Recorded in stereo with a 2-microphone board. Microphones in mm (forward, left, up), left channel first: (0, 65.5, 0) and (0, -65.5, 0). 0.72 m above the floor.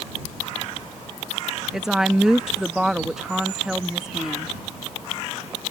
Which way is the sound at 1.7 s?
5° right (ahead or behind).